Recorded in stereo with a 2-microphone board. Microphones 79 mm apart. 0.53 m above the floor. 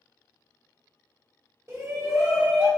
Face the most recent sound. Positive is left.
turn(degrees=-25)  # may be behind; listen again after turning